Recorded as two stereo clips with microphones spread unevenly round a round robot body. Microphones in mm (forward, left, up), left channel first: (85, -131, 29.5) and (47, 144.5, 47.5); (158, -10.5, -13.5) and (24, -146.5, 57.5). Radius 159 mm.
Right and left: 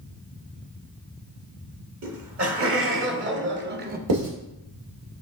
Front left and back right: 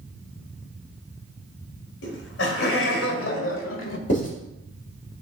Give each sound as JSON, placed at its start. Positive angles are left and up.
{"t": 2.0, "sound": "laughter", "azimuth_deg": 55, "distance_m": 2.0}
{"t": 4.1, "sound": "writing", "azimuth_deg": 95, "distance_m": 2.5}